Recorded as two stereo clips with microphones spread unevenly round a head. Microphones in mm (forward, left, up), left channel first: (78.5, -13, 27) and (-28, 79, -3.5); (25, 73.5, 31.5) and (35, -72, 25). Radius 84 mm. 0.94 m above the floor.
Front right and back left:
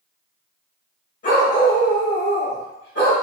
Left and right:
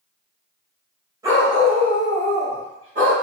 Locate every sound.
1.2 s a dog barking: 20° right, 1.5 m; by 3.1 s 50° right, 2 m